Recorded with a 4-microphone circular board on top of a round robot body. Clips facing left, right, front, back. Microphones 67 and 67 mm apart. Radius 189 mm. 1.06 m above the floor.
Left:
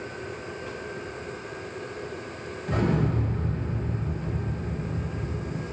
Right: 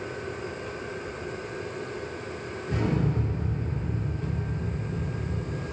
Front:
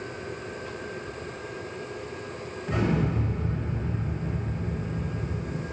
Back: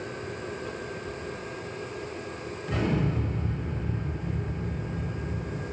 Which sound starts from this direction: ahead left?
An explosion, at 2.7 s.